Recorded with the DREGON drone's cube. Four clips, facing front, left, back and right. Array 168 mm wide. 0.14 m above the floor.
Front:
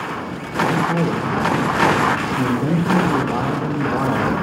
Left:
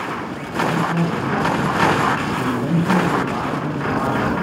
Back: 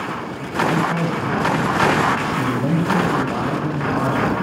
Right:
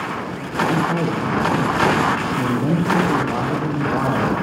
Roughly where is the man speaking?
Ahead right.